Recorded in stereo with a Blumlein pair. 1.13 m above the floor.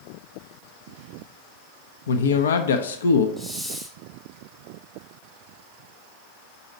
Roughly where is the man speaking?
Ahead left.